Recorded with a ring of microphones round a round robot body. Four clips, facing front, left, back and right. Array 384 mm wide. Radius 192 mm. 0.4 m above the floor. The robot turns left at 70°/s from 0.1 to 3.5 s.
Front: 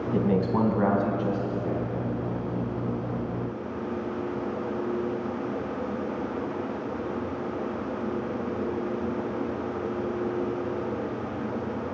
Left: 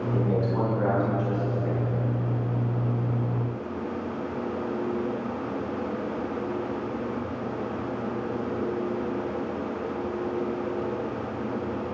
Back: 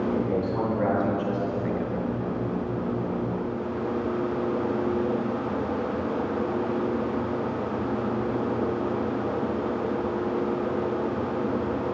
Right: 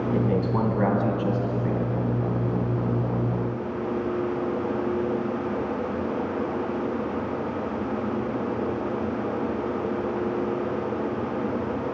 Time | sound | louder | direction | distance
0.1 | a man speaking | right 1 dB, front 1 dB | 5° left | 2.5 m